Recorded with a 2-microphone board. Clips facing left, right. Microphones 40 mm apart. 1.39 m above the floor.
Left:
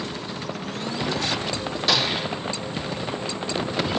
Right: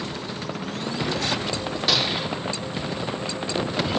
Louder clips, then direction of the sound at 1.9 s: Left 1 dB; 5° right (ahead or behind).